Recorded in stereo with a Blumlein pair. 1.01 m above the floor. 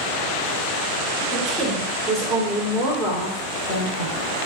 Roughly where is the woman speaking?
Ahead.